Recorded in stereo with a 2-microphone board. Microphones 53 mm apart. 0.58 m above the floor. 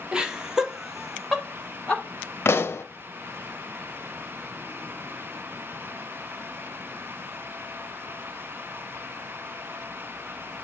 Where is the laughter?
15° right (ahead or behind), 1.4 m; by 2.0 s 10° left (ahead or behind), 1.7 m.